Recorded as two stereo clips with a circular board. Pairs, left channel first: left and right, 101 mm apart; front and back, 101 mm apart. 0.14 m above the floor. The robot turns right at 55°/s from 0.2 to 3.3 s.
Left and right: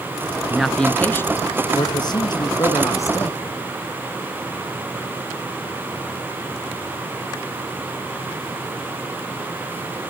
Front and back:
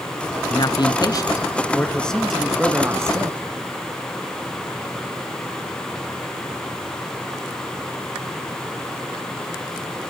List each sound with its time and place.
0.5 s a man speaking: 10° right, 1.5 m; by 3.4 s 145° left, 1.5 m